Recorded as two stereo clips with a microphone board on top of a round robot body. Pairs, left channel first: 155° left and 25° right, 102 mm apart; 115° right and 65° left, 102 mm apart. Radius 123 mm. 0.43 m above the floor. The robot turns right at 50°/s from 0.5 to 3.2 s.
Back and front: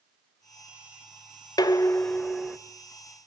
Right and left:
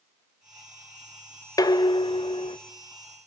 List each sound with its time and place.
1.6 s dishes clattering: 160° right, 1.0 m; by 2.6 s 110° right, 1.0 m